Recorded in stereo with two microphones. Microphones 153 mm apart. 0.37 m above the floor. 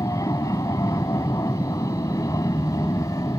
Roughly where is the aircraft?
Left.